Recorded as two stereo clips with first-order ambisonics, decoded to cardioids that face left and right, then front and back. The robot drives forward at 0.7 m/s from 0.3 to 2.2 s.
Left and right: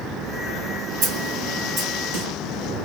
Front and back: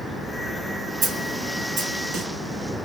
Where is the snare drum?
125° right, 1.9 m; by 2.3 s 145° right, 2.5 m.